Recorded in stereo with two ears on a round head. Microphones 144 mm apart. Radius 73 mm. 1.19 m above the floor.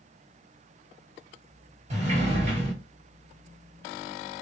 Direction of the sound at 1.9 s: 45° right (ahead or behind).